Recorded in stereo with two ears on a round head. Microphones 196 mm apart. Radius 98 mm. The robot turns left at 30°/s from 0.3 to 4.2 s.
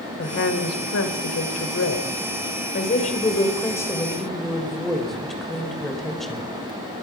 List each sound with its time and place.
0.2 s a woman speaking: 120° left, 2.5 m; by 6.4 s straight ahead, 2.5 m